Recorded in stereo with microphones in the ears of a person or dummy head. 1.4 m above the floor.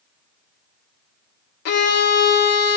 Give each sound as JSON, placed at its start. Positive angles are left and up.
{"t": 1.6, "sound": "a violin", "side_deg": 60, "distance_m": 0.6}